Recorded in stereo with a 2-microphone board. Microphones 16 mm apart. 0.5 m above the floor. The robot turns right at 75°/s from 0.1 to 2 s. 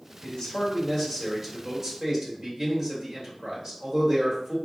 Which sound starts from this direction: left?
A man speaking, at 0.2 s.